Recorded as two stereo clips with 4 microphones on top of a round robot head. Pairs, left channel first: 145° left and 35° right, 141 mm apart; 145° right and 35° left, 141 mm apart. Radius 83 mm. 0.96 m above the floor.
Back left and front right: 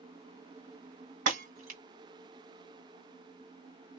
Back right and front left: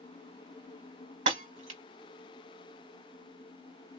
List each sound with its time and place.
1.3 s breaking glass: 5° right, 2.5 m